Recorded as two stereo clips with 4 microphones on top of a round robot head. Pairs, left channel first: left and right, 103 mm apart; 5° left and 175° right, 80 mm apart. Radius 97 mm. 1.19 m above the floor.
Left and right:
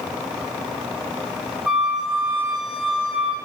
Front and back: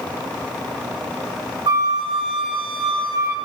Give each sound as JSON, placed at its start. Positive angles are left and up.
{"t": 1.7, "sound": "a flute", "azimuth_deg": -170, "distance_m": 1.6}